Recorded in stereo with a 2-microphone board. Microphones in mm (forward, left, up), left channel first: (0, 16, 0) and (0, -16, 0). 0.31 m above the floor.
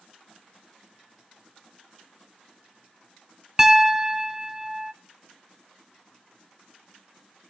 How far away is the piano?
About 0.8 m.